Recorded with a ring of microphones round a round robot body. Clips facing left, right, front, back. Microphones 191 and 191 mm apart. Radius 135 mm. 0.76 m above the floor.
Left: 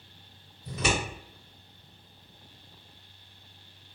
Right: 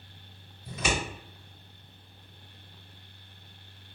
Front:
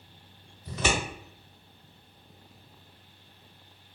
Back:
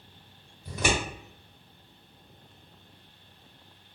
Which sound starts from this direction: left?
Scissors, at 0.7 s.